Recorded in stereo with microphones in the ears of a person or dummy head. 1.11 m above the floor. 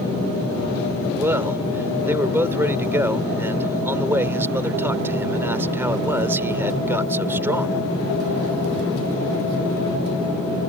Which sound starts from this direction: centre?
A man speaking, at 1.1 s.